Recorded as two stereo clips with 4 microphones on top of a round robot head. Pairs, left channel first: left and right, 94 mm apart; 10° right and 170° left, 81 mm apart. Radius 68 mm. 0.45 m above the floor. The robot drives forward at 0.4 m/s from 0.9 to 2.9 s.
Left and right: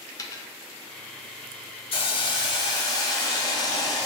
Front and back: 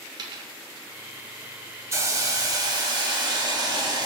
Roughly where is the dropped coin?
Behind left.